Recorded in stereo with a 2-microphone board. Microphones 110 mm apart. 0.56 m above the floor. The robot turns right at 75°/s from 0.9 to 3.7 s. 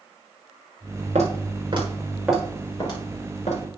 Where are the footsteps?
80° right, 5 m; by 3.6 s 80° left, 6.5 m.